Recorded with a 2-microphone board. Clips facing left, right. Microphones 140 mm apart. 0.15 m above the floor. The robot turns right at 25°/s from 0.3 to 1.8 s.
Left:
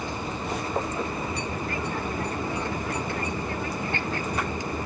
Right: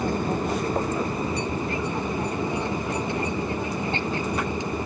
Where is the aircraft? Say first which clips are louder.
Right 7 dB; 60° right; by 4.9 s 25° right.